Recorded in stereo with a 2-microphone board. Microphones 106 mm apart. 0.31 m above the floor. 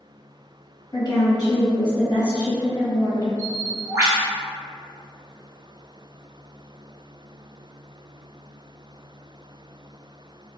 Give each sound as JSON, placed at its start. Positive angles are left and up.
{"t": 0.9, "sound": "a woman speaking", "side_deg": 35, "distance_m": 1.4}
{"t": 3.4, "sound": "a bird", "side_deg": -25, "distance_m": 1.0}